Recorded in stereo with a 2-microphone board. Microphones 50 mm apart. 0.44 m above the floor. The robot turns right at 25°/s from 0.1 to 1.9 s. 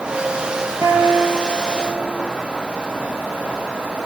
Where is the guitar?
80° right, 7.5 m; by 2.2 s 55° right (ahead or behind), 7.5 m.